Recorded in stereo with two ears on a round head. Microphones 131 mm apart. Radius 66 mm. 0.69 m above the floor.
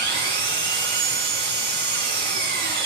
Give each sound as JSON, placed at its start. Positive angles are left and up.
{"t": 0.0, "sound": "an engine running", "side_deg": -85, "distance_m": 8.0}